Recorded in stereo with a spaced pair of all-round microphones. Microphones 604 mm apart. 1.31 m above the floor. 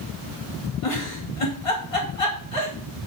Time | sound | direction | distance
0.8 | a giggle | 60° left (ahead or behind) | 2.5 m